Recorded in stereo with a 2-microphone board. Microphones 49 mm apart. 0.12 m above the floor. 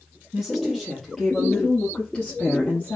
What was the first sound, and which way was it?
A woman speaking, 5° right (ahead or behind).